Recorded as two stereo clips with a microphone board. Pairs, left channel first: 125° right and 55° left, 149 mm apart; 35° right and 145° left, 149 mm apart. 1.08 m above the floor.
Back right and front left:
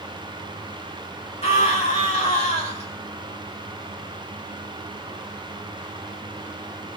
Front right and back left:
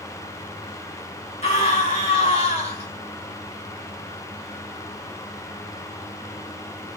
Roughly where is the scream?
Right.